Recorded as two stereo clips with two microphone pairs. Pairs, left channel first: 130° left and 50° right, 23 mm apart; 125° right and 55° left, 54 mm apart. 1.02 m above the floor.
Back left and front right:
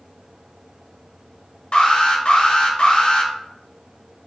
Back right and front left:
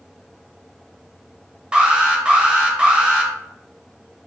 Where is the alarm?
125° left, 0.6 m.